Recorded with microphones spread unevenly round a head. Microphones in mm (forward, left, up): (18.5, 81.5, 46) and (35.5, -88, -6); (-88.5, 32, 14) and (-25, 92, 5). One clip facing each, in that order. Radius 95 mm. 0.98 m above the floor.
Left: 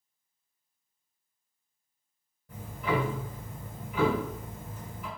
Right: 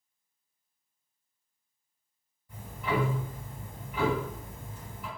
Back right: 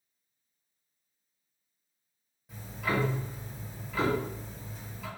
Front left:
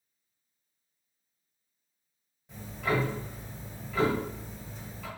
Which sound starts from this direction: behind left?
Ticking, at 2.5 s.